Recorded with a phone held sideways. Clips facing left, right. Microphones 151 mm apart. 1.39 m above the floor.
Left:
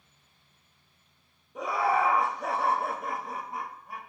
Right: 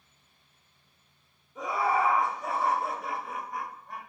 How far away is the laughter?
About 1.1 m.